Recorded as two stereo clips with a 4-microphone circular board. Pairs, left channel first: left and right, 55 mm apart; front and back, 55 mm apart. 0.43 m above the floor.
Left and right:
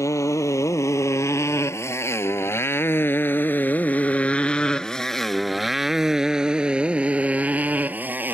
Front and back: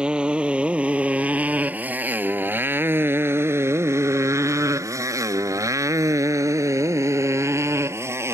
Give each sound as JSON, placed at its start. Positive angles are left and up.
{"t": 0.0, "sound": "a motorcycle", "azimuth_deg": 110}